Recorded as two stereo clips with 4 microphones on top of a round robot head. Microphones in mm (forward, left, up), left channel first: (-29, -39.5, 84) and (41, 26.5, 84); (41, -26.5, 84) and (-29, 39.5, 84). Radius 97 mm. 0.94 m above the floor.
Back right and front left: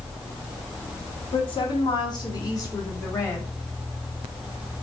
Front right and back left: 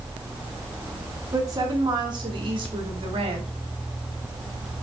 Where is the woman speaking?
170° right, 2 m; by 3.5 s 160° left, 2.5 m.